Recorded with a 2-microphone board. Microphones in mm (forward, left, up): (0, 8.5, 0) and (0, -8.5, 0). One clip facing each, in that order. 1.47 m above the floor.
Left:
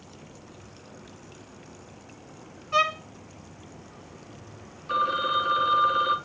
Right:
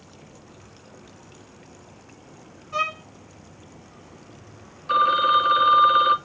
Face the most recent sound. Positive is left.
turn(degrees=-20)  # may be behind; listen again after turning